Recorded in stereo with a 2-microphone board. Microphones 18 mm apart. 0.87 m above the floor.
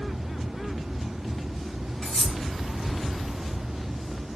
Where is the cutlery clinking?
65° left (ahead or behind), 3.5 m.